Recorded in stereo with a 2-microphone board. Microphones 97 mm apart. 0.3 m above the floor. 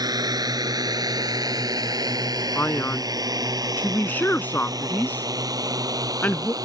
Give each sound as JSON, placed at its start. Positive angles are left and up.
{"t": 0.0, "sound": "a drone", "side_deg": -40}
{"t": 2.5, "sound": "a man speaking", "side_deg": 20}